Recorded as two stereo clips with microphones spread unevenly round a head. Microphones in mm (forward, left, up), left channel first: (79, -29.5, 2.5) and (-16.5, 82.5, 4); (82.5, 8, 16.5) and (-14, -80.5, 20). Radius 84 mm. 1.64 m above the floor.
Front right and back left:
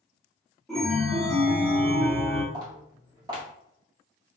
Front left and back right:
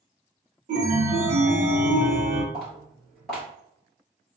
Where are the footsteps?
130° left, 1.7 m.